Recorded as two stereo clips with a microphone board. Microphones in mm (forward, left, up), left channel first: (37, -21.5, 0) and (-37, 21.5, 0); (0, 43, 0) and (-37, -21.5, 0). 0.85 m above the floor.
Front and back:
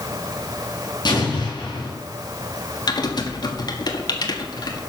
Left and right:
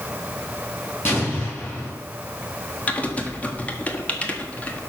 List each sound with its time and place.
1.1 s an explosion: straight ahead, 5 m
2.9 s typing on a keyboard: 10° right, 1.5 m